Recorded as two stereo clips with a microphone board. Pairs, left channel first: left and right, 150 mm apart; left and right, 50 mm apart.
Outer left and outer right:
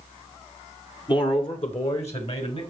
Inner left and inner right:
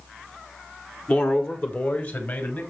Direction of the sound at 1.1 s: 30° left (ahead or behind).